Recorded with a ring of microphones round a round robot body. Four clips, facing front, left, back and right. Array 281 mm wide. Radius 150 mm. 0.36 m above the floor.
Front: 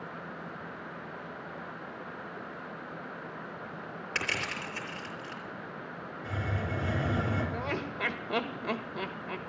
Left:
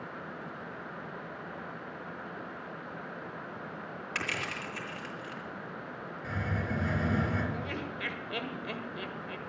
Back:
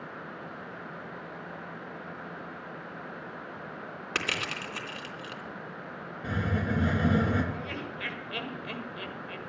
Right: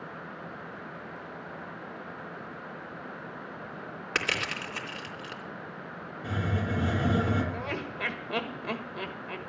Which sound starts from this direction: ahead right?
Laughter, at 7.5 s.